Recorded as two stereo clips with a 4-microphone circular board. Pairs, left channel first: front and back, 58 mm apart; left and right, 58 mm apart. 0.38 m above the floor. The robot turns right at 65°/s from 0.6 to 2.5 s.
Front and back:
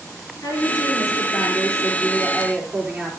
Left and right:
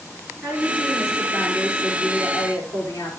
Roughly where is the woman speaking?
Ahead right.